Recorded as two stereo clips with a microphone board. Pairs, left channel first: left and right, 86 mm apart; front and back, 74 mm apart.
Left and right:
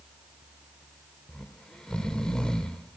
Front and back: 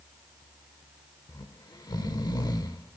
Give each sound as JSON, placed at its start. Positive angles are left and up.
{"t": 1.3, "sound": "snoring", "azimuth_deg": 10, "distance_m": 0.9}